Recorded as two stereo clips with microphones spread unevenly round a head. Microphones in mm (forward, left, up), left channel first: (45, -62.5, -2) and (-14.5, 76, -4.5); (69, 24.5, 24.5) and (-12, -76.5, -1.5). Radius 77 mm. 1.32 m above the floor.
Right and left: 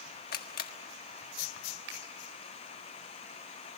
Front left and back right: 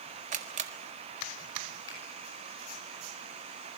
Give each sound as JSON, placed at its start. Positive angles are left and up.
{"t": 0.3, "sound": "a camera shutter", "azimuth_deg": -95, "distance_m": 1.6}
{"t": 1.9, "sound": "a finger snap", "azimuth_deg": 115, "distance_m": 5.5}